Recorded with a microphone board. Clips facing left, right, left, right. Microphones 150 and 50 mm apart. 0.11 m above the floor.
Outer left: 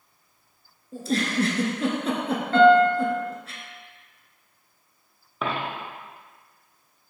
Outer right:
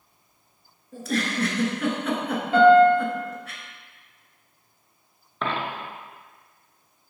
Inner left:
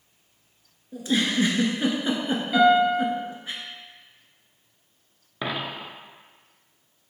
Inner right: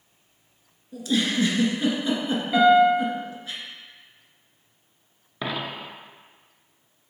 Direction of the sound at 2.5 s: 10° right (ahead or behind).